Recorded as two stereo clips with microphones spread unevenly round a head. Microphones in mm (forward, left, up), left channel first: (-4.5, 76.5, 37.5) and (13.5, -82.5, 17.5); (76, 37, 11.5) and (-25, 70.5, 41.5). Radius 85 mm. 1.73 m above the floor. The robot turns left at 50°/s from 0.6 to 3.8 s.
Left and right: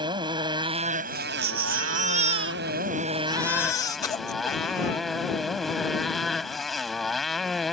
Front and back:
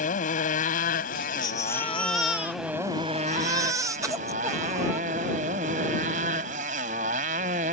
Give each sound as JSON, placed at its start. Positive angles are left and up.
{"t": 0.0, "sound": "a motorcycle", "azimuth_deg": -15}
{"t": 1.1, "sound": "a baby crying", "azimuth_deg": -75}